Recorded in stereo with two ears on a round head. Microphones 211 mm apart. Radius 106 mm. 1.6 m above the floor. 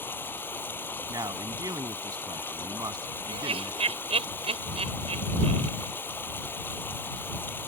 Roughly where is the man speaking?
Centre.